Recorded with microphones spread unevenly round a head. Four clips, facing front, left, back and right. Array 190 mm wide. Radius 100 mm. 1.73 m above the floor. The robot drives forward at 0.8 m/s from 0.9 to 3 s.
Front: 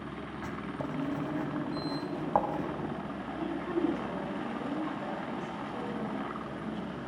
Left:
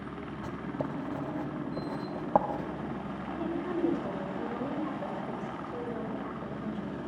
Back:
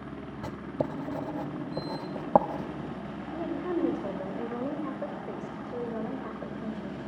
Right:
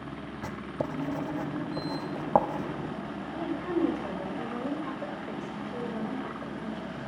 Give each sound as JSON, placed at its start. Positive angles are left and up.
{"t": 0.4, "sound": "writing", "azimuth_deg": -165, "distance_m": 0.9}
{"t": 3.3, "sound": "a woman speaking", "azimuth_deg": 180, "distance_m": 6.0}